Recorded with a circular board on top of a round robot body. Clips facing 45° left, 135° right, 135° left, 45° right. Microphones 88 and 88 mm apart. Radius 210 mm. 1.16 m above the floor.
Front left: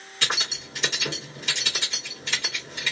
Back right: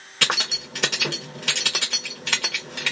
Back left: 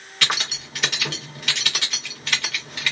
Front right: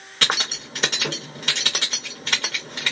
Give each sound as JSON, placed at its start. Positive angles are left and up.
{"t": 0.2, "sound": "keys jangling", "azimuth_deg": -105, "distance_m": 1.0}